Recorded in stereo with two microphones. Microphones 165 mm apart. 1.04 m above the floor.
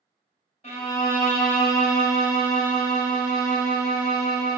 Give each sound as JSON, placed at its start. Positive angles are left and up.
{"t": 0.6, "sound": "a violin", "side_deg": 45, "distance_m": 0.7}